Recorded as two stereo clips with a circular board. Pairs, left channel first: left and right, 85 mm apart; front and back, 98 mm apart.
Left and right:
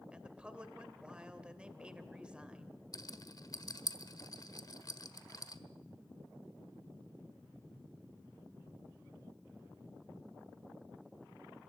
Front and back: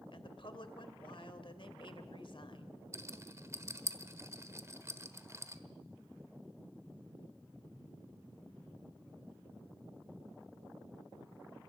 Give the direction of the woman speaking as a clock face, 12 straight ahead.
12 o'clock.